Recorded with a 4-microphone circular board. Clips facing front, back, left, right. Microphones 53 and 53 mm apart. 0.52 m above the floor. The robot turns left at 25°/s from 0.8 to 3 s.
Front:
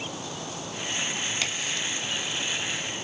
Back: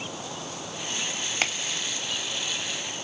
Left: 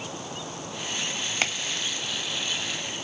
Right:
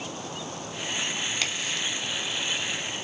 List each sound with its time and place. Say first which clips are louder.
1.4 s a crack: back 1 dB, left 1 dB; 140° left, 0.9 m; by 1.9 s 130° left, 0.9 m